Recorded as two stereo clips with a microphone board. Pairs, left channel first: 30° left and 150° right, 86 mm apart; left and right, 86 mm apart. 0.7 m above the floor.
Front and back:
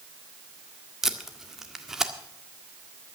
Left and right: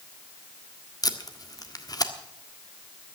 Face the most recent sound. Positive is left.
turn(degrees=125)